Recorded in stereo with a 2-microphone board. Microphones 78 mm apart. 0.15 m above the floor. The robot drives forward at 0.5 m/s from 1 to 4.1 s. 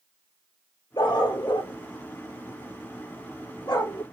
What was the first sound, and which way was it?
A dog barking, 65° left (ahead or behind).